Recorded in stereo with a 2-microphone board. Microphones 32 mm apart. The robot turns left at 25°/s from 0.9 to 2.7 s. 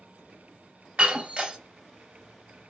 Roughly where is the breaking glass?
Right.